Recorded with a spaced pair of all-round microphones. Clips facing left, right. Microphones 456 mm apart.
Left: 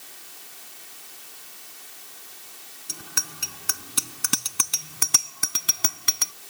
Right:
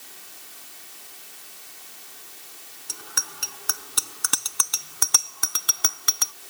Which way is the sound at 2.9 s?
45° left (ahead or behind).